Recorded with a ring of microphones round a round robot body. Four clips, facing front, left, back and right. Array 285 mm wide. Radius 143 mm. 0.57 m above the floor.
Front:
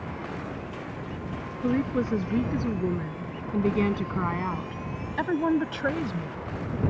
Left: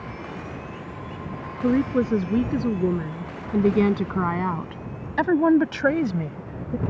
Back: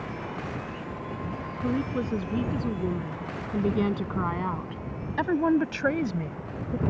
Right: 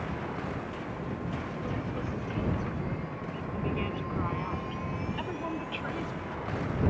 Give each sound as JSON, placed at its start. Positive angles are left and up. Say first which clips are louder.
{"t": 1.6, "sound": "a woman speaking", "louder": "left 14 dB, front 3 dB", "azimuth_deg": 80}